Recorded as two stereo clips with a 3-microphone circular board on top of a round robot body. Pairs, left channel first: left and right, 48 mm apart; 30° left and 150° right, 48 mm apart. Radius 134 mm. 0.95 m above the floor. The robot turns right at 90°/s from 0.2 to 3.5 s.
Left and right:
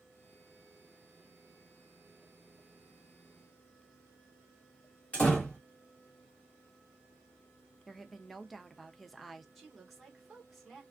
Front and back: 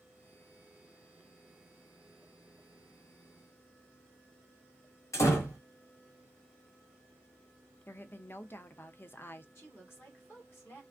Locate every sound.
5.1 s a door slam: 25° left, 1.2 m
7.9 s a woman speaking: straight ahead, 0.6 m
9.6 s a woman speaking: straight ahead, 1.5 m